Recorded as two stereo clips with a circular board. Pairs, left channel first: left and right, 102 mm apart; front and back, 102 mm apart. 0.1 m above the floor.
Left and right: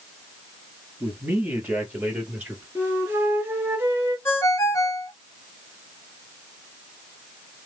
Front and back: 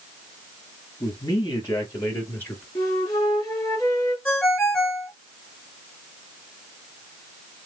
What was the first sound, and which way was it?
A man speaking, 35° right.